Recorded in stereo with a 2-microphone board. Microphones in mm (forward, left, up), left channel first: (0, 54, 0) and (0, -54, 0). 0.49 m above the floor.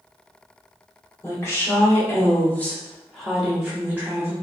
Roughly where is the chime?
No chime in this recording.